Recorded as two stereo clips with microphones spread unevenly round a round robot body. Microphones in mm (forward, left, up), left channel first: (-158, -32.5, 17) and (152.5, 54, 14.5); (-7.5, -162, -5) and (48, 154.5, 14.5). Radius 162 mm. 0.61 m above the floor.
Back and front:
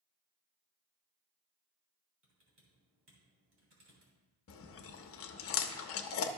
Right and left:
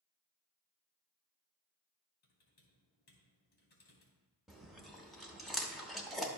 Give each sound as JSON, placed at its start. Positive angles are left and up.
{"t": 2.2, "sound": "typing on a keyboard", "azimuth_deg": -40, "distance_m": 2.5}
{"t": 4.5, "sound": "chewing", "azimuth_deg": 175, "distance_m": 0.6}